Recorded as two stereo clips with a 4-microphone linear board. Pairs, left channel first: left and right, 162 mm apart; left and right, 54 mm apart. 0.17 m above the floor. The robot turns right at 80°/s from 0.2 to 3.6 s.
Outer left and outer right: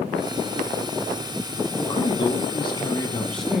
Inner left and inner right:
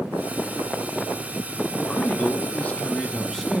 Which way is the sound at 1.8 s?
40° left.